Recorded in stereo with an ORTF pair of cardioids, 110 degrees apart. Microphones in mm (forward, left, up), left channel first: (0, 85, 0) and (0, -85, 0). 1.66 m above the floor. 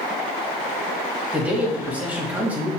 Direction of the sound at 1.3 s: 10° right.